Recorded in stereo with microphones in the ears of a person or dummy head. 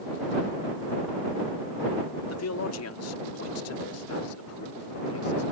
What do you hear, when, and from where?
2.3 s a man speaking: 80° left; by 5.4 s 85° left